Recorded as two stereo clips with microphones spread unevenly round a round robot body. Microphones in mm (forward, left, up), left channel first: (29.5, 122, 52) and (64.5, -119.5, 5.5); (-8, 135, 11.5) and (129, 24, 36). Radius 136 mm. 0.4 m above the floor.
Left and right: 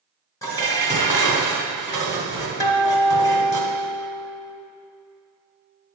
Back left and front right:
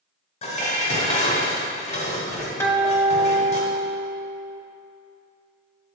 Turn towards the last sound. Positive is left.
turn(degrees=175)